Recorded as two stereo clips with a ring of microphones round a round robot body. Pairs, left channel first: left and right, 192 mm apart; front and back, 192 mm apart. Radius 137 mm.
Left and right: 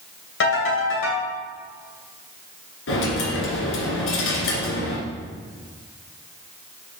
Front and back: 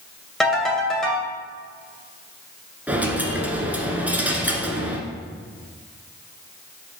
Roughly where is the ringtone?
Left.